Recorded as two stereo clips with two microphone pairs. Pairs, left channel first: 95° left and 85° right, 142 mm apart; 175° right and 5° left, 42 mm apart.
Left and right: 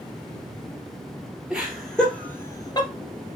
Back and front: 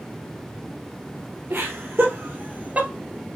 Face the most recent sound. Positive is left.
turn(degrees=55)